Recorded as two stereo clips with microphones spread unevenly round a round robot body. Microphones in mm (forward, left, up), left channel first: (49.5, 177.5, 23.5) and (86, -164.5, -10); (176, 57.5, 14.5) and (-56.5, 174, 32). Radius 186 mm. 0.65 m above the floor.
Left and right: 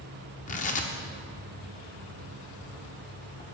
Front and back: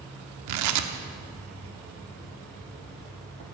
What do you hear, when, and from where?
0.5 s tearing paper: 170° left, 0.9 m